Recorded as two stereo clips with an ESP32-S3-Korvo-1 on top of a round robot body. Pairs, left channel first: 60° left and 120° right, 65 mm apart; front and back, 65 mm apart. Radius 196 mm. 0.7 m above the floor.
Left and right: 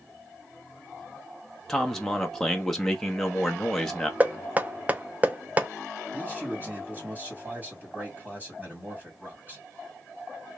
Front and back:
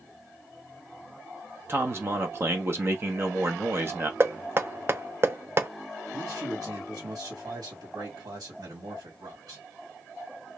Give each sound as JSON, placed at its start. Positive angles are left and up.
{"t": 1.7, "sound": "a man speaking", "azimuth_deg": 140, "distance_m": 1.0}
{"t": 4.2, "sound": "knocking", "azimuth_deg": -170, "distance_m": 0.8}
{"t": 6.1, "sound": "a man speaking", "azimuth_deg": 175, "distance_m": 1.7}